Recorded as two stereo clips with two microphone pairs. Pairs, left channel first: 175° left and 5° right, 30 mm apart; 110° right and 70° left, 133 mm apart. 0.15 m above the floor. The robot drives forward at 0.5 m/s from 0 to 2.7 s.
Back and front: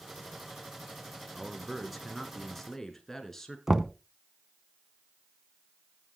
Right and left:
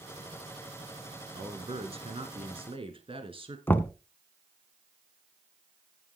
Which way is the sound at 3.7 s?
60° right.